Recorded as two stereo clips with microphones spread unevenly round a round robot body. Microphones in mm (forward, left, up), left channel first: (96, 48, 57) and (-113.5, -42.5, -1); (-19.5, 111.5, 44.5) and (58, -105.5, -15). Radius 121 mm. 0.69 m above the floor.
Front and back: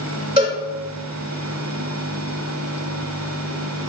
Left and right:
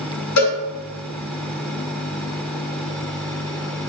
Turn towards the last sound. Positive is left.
turn(degrees=135)